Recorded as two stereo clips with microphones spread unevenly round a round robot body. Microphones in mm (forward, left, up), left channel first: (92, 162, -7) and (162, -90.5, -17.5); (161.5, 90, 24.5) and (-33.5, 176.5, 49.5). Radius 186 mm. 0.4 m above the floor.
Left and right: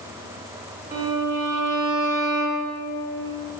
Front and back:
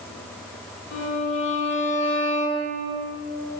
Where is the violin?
15° right, 1.4 m.